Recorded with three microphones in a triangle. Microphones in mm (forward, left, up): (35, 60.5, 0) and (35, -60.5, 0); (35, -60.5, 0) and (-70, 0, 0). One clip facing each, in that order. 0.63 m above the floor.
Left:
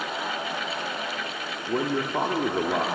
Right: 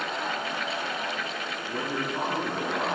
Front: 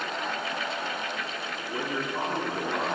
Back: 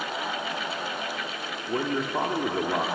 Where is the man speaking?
100° left, 1.1 m.